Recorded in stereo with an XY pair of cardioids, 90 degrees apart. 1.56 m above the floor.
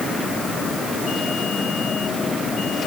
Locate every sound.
Only background noise.